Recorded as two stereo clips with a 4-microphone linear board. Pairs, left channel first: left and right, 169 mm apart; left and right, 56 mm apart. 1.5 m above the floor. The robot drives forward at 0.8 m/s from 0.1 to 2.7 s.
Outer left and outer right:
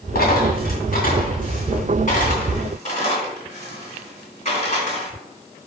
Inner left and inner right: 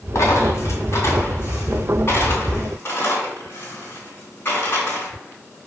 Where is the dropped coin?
60° left (ahead or behind), 2.5 m; by 5.1 s 40° left (ahead or behind), 3 m.